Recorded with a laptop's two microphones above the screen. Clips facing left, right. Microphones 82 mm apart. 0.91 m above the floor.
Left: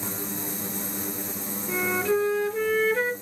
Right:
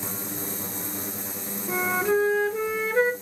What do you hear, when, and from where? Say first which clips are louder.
1.7 s a flute: right 1 dB; 20° right (ahead or behind), 0.7 m